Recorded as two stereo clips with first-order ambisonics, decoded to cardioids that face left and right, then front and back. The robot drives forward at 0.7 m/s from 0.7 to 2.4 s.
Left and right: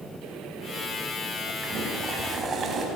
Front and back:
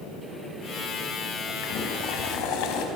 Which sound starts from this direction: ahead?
Boiling, at 1.6 s.